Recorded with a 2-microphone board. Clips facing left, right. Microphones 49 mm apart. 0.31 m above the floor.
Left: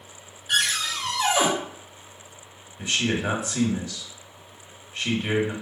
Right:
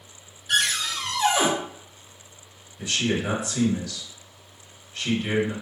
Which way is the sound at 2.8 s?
30° left (ahead or behind).